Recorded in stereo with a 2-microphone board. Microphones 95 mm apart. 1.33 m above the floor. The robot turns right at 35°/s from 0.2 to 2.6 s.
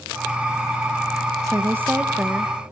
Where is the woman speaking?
35° right, 1.1 m; by 2.5 s 5° left, 1.1 m.